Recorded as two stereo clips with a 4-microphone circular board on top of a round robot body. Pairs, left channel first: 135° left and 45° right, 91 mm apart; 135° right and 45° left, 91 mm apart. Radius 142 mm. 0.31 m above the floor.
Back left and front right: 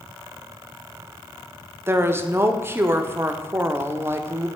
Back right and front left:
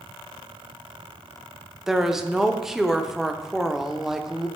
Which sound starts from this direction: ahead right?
A woman speaking, at 1.9 s.